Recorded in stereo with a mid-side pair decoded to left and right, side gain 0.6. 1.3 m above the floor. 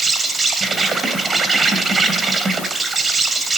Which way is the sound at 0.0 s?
30° right.